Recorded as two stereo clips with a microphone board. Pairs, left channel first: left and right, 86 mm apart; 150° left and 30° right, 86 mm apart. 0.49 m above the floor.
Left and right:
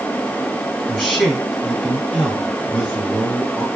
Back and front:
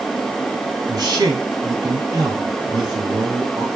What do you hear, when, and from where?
0.9 s a man speaking: 10° left, 5 m